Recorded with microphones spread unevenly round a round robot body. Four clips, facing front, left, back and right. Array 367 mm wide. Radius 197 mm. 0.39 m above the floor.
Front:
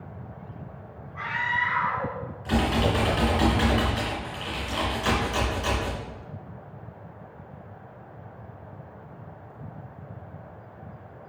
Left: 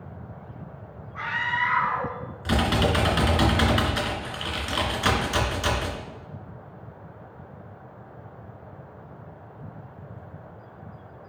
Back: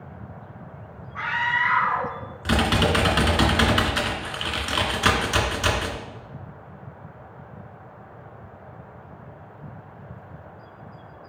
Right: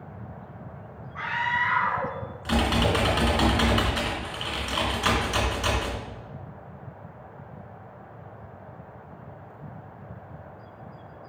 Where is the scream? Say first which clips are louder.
Even, back 3 dB; 160° left, 5.5 m.